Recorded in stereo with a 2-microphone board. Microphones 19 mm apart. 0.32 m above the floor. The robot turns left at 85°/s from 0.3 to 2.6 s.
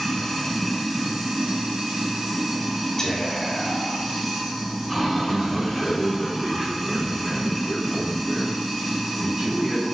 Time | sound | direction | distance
0.0 | running water | 40° left | 1.8 m
3.0 | whispering | 15° left (ahead or behind) | 1.0 m
5.3 | a man speaking | 60° right (ahead or behind) | 1.8 m